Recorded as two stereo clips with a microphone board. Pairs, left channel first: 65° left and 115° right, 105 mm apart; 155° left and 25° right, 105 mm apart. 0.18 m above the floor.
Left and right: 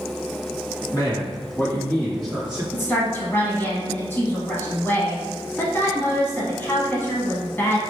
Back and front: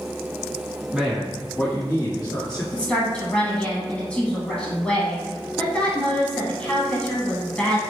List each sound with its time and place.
0.9 s a man speaking: 55° left, 1.8 m; by 2.6 s 175° left, 1.9 m
2.7 s a woman speaking: 95° left, 1.2 m